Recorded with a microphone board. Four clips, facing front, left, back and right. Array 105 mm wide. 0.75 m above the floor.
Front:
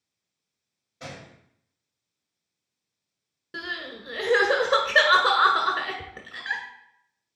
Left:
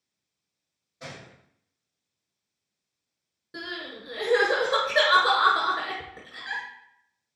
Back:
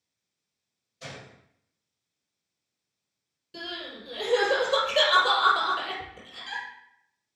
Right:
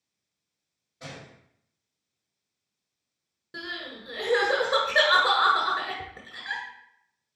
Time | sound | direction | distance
1.0 | a gunshot | straight ahead | 1.7 m
3.5 | crying | 5° right | 1.5 m